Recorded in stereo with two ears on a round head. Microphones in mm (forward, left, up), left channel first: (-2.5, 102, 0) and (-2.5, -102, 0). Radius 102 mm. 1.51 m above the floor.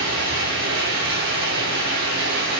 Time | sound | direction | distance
0.0 | running water | 45° right (ahead or behind) | 4.5 m